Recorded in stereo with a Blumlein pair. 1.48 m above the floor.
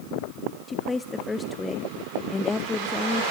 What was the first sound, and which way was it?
A woman speaking, 10° left.